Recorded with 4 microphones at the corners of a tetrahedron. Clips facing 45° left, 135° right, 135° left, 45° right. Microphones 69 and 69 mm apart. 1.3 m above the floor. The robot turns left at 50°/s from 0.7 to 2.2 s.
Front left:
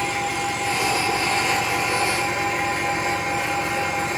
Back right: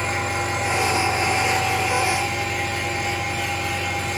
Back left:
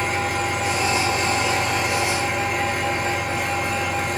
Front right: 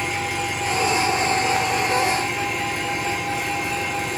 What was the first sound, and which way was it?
An engine running, 175° left.